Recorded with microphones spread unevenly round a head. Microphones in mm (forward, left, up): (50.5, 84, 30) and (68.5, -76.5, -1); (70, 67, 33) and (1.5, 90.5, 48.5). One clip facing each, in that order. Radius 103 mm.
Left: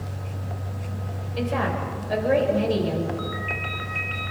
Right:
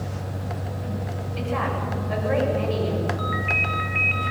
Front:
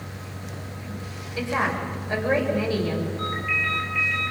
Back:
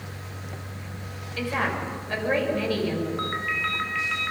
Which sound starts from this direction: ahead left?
A woman speaking, at 1.4 s.